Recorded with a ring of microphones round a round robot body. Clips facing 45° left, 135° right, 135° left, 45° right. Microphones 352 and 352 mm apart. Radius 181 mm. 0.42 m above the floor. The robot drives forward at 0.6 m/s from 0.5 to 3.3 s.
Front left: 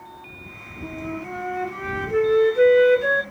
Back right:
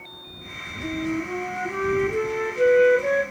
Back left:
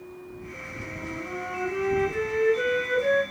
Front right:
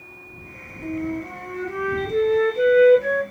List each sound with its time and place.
0.8 s a flute: 35° left, 2.5 m; by 3.2 s 65° left, 1.7 m